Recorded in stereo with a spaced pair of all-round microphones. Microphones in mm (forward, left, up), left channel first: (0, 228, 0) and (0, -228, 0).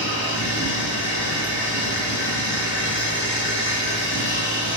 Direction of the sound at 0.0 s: 25° left (ahead or behind).